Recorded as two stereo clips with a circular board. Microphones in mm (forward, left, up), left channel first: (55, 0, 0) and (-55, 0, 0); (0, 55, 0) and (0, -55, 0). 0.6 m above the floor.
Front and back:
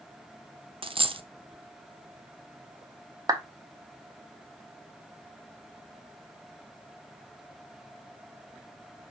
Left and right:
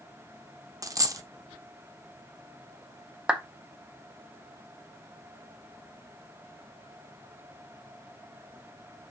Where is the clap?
165° right, 0.8 m.